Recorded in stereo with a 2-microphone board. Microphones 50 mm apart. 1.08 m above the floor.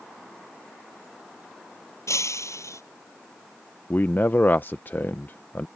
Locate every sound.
2.1 s breaking glass: 85° left
3.9 s a man speaking: 45° left (ahead or behind)